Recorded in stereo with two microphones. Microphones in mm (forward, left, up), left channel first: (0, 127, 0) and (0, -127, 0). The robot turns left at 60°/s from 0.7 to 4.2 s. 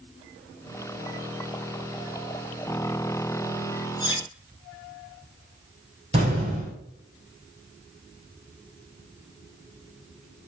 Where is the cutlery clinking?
15° left (ahead or behind), 0.9 m; by 4.2 s 25° left (ahead or behind), 0.9 m.